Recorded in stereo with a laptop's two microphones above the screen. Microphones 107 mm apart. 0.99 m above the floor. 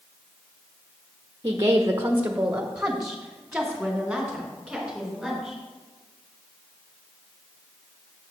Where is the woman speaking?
30° right (ahead or behind), 0.7 m; by 5.6 s centre (ahead or behind), 4.5 m.